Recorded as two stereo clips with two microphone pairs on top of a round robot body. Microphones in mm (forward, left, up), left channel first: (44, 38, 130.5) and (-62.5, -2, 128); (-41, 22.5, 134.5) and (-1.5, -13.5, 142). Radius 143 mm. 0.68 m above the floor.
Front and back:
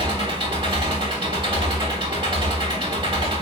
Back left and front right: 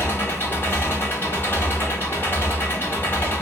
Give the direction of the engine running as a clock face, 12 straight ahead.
6 o'clock.